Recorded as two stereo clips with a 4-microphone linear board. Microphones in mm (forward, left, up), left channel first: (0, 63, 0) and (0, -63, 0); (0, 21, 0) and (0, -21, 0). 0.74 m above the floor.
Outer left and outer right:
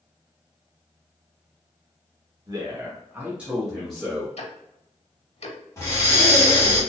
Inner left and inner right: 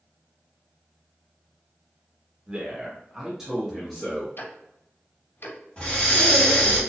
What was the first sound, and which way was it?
A man speaking, 30° right (ahead or behind).